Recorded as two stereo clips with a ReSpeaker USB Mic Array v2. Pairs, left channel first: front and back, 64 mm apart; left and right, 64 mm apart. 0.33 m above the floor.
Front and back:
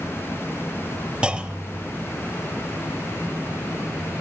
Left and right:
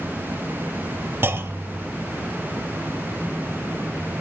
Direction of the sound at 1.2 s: 115° right.